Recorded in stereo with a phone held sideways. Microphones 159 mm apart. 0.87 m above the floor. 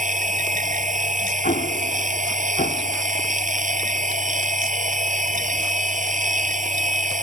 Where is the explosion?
75° left (ahead or behind).